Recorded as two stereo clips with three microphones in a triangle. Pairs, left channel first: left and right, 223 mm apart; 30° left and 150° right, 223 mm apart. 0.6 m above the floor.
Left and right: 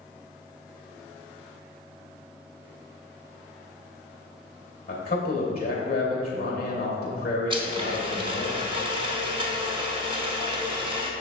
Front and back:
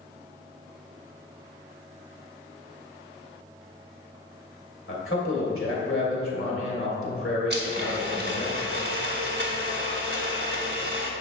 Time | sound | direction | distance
4.9 | a man speaking | 45° left | 2.5 m
7.5 | a blender | 150° right | 1.0 m